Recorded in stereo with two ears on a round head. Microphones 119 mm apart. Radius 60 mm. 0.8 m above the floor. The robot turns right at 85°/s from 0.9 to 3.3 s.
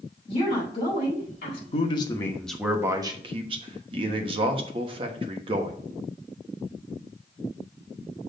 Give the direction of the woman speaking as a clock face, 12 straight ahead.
11 o'clock.